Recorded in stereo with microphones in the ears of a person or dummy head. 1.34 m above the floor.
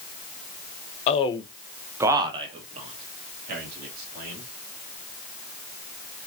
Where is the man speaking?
35° left (ahead or behind), 0.8 m; by 4.4 s 55° right (ahead or behind), 2.5 m.